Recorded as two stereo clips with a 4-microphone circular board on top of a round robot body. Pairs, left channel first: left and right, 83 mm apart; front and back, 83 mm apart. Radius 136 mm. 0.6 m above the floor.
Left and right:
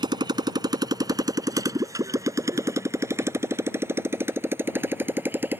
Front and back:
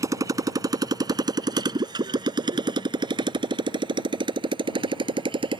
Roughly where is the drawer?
No drawer in this recording.